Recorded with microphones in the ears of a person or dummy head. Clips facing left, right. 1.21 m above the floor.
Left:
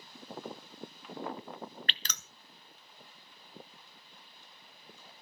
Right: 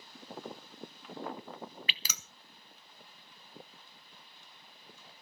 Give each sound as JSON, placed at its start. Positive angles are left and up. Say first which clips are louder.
{"t": 1.9, "sound": "dripping", "louder": "left 1 dB", "side_deg": -10, "distance_m": 0.5}